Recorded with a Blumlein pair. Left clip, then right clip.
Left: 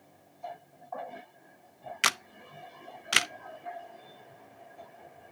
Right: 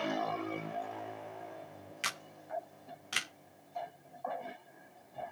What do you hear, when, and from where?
2.0 s a camera shutter: 30° left, 0.7 m